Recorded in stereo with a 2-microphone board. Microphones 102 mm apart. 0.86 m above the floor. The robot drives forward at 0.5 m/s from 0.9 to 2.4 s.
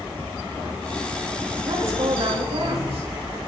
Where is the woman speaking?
80° right, 5 m.